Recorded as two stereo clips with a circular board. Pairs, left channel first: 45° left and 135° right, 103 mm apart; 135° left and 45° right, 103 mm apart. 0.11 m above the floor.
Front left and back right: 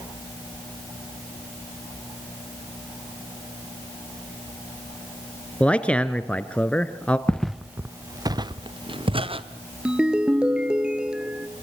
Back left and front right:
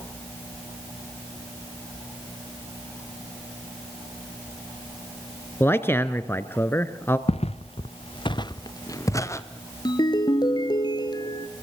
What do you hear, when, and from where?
5.6 s a man speaking: 105° left, 1.2 m
7.3 s footsteps: 125° left, 0.8 m; by 9.4 s 165° right, 1.8 m
9.8 s a ringtone: 145° left, 1.3 m